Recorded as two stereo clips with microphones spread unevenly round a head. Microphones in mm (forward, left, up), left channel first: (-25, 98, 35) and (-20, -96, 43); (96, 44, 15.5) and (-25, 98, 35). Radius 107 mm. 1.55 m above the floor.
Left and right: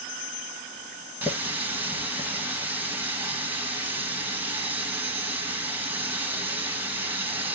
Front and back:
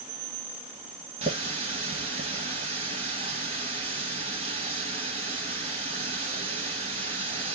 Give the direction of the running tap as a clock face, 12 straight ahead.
6 o'clock.